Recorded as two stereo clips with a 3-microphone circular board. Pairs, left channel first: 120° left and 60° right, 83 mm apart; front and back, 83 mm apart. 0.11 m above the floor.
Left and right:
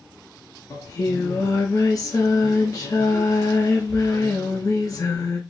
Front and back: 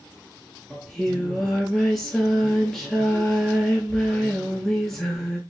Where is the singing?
85° left, 0.7 m.